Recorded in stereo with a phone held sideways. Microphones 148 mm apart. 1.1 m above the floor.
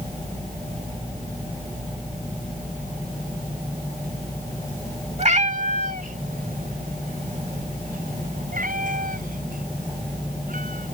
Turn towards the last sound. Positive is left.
turn(degrees=-70)  # may be behind; listen again after turning